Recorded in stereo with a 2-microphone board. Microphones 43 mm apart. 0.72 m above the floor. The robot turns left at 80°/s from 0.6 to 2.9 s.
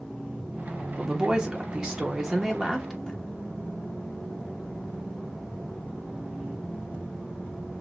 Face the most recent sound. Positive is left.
turn(degrees=15)  # may be behind; listen again after turning